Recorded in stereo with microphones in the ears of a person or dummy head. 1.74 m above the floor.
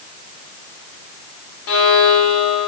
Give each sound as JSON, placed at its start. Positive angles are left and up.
{"t": 1.7, "sound": "a violin", "side_deg": 80, "distance_m": 0.6}